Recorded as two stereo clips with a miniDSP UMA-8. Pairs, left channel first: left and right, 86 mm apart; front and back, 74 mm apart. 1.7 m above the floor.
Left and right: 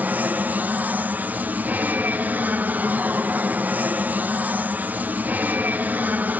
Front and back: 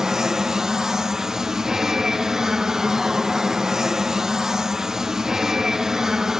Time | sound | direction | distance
0.0 | an aircraft | 110° right | ?